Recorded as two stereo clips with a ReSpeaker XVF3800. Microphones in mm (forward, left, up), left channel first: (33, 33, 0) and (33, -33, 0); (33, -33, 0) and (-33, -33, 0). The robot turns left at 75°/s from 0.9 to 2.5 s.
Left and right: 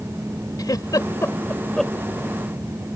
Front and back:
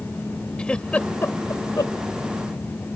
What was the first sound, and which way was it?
A giggle, 75° left.